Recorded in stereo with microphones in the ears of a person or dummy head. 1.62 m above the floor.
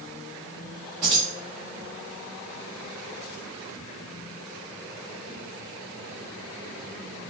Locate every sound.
1.0 s keys jangling: 20° right (ahead or behind), 0.6 m